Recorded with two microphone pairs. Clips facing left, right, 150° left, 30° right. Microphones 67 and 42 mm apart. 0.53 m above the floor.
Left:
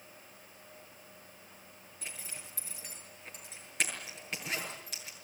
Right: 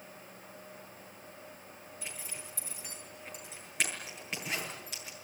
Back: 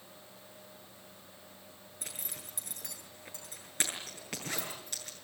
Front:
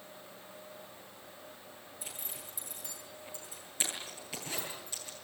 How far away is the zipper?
About 8 m.